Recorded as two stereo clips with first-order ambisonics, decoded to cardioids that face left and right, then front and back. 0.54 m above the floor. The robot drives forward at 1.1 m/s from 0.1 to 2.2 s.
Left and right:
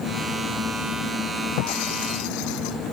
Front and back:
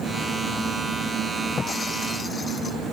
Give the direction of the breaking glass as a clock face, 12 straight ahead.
10 o'clock.